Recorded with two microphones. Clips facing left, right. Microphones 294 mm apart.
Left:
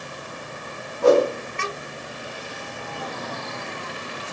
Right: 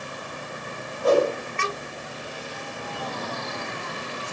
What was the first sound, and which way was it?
A whoosh, 80° left.